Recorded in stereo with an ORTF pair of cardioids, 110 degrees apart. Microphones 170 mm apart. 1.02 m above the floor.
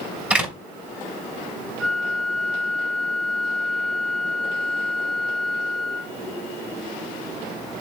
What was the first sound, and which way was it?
A door slam, 5° right.